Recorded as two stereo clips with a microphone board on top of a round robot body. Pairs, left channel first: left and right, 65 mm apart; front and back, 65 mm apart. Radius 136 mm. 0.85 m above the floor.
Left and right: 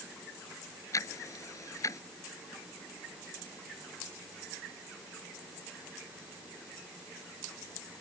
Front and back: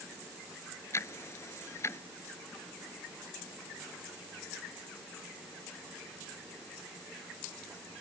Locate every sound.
0.9 s ticking: 50° left